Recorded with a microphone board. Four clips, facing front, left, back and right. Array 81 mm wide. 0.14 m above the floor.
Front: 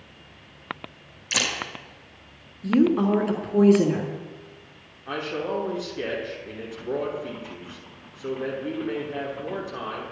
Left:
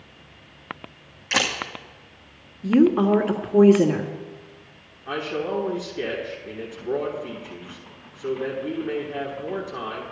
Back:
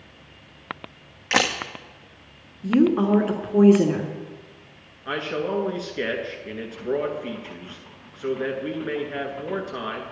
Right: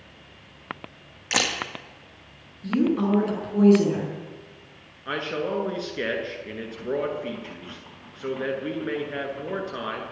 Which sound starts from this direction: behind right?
A man speaking, at 5.0 s.